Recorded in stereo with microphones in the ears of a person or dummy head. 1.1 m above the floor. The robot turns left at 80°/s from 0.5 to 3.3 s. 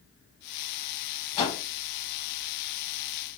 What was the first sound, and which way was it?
A whoosh, 35° left (ahead or behind).